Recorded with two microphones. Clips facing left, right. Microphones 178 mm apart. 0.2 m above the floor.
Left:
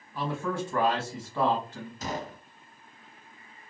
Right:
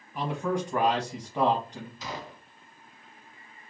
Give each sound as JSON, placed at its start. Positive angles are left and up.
{"t": 0.1, "sound": "a man speaking", "side_deg": -15, "distance_m": 1.1}
{"t": 2.0, "sound": "a gunshot", "side_deg": 50, "distance_m": 0.6}